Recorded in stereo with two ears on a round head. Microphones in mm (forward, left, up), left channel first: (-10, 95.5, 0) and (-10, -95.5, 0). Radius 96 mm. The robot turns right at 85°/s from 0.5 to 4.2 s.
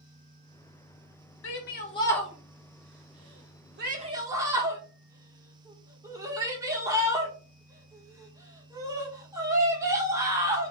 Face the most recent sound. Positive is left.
turn(degrees=-15)  # may be behind; listen again after turning